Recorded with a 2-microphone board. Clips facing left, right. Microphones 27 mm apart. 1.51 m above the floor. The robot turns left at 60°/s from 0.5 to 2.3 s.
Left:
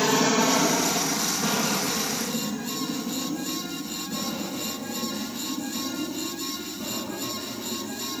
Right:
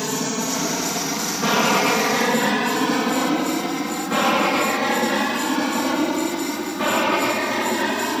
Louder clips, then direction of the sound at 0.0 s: Left 3 dB; 20° left (ahead or behind).